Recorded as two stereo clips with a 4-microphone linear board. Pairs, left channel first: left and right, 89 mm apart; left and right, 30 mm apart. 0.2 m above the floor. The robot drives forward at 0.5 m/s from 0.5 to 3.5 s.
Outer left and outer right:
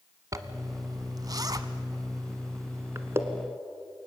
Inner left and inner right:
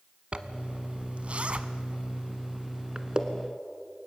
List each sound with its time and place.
0.3 s a zipper: 40° right (ahead or behind), 0.9 m; by 3.2 s 25° right (ahead or behind), 1.3 m